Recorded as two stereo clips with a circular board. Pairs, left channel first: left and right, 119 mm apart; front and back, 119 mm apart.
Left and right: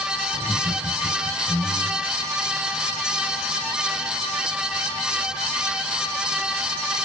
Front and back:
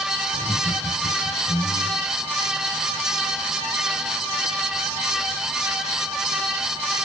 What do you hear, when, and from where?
0.3 s laughter: straight ahead, 2 m